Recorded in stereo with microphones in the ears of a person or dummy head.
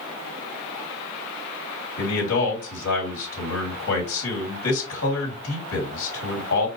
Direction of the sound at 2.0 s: 80° left.